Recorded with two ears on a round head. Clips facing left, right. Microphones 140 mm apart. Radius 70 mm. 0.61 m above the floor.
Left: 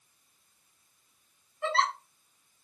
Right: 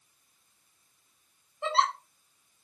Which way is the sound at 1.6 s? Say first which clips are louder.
Right 1 dB; 20° right (ahead or behind).